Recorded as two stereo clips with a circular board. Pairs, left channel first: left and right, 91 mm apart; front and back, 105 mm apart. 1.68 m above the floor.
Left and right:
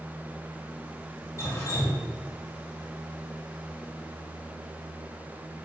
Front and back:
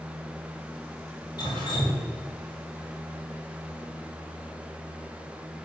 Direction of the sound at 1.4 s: 40° left.